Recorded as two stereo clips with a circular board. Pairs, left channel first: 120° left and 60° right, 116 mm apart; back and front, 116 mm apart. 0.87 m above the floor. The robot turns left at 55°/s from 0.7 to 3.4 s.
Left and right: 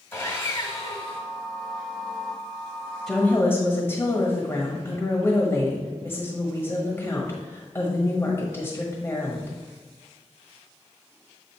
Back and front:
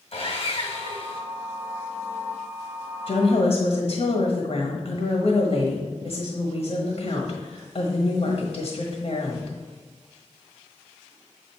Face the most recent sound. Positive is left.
turn(degrees=-175)